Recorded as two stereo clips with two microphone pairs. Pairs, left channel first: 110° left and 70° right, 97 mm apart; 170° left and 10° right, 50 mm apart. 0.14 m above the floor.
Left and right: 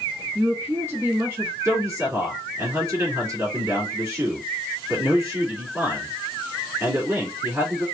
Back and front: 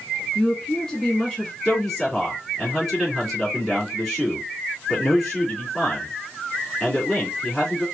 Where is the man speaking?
115° right, 1.9 m.